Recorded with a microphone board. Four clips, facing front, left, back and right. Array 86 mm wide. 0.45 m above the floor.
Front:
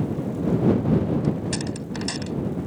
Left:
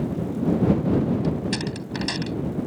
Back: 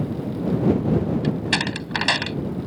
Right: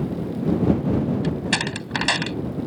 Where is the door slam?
140° right.